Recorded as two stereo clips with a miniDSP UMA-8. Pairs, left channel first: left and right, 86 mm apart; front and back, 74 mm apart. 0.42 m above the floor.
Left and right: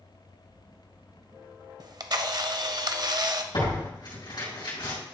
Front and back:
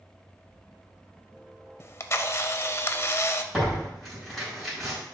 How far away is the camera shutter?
About 0.5 m.